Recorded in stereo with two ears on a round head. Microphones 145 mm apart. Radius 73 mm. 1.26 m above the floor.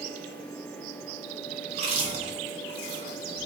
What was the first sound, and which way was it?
Chewing, 40° right (ahead or behind).